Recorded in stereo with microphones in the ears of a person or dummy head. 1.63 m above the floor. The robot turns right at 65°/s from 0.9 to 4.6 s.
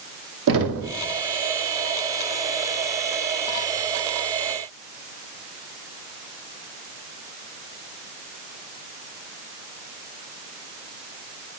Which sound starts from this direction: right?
Knocking, at 0.5 s.